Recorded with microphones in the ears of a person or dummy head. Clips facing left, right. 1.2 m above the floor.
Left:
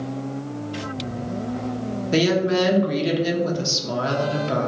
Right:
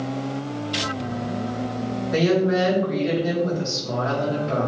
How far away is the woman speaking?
About 0.9 m.